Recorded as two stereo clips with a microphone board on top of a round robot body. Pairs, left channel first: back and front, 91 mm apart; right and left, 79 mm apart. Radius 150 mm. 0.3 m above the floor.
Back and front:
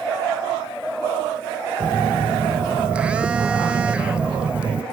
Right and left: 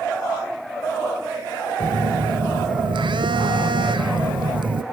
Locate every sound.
1.8 s a phone buzzing: 80° left, 0.5 m